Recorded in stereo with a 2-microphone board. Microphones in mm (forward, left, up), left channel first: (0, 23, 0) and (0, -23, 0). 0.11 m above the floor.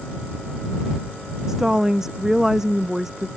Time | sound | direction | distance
1.5 | a woman speaking | 10° right (ahead or behind) | ?